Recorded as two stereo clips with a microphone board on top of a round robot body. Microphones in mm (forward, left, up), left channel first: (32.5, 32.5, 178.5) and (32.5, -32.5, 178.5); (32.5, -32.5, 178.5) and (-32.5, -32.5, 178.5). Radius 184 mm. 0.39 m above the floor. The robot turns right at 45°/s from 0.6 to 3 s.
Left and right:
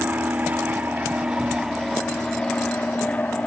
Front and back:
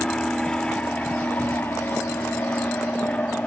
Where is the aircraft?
60° right; by 3.5 s 45° left.